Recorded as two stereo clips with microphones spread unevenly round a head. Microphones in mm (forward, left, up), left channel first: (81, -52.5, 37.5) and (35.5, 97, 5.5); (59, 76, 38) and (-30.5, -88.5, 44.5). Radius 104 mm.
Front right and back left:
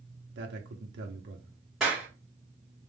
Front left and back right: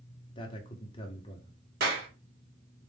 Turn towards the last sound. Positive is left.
turn(degrees=-160)